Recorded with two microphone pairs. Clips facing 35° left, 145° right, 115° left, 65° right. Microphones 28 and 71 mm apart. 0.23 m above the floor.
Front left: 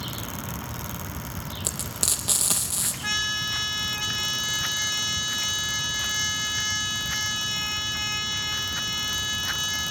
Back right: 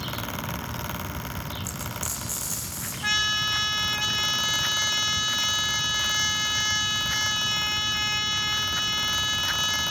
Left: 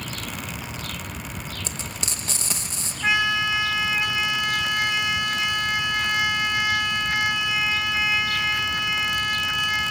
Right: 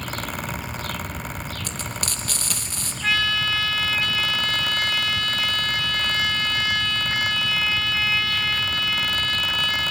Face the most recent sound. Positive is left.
turn(degrees=165)